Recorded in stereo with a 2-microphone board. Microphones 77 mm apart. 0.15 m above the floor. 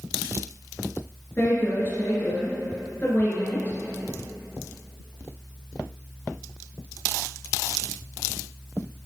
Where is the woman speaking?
35° left (ahead or behind), 2.5 m.